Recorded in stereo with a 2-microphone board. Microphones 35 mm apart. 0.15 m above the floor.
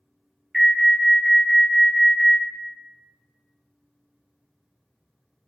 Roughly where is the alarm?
Centre.